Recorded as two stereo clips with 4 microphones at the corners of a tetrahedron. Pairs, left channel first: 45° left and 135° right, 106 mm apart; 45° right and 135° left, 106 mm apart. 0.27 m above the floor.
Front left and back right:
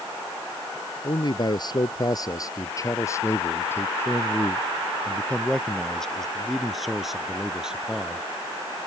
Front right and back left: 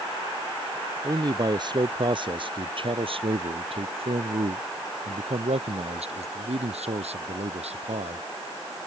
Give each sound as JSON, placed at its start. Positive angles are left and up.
{"t": 1.0, "sound": "a man speaking", "azimuth_deg": 85}